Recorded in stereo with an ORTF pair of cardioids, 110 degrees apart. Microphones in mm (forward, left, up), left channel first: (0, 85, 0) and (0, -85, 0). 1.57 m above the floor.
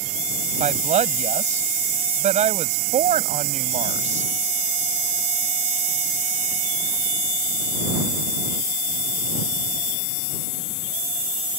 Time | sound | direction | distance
0.6 | a woman speaking | 45° right | ?